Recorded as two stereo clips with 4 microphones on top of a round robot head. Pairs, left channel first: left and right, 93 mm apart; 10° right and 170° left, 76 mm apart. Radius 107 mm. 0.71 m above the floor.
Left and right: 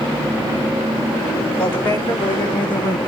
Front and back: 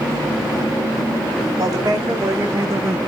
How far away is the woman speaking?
About 3 m.